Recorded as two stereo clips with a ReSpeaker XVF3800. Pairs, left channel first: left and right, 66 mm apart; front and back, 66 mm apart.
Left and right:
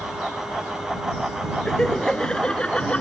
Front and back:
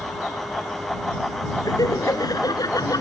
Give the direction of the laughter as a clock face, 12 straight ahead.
12 o'clock.